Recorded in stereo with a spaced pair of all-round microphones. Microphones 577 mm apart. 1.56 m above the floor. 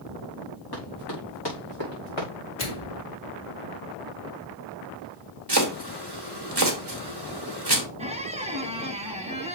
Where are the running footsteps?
40° left (ahead or behind), 5.5 m; by 2.3 s 50° left (ahead or behind), 6 m.